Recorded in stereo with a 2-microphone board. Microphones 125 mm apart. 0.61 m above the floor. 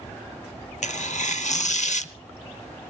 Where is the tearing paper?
70° left (ahead or behind), 0.7 m.